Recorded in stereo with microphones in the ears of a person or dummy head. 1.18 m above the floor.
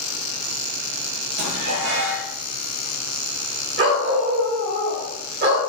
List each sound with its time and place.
1.4 s dishes clattering: 55° right (ahead or behind), 1.0 m
3.8 s a dog barking: 45° right (ahead or behind), 1.5 m